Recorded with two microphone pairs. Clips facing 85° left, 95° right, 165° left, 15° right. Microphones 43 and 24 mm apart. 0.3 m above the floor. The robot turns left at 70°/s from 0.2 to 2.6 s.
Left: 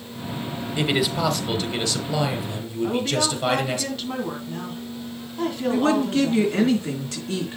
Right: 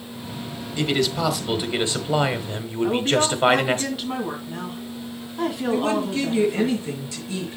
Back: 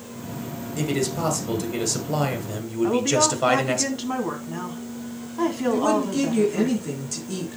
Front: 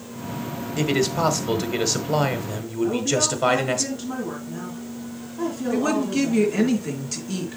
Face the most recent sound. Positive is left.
turn(degrees=50)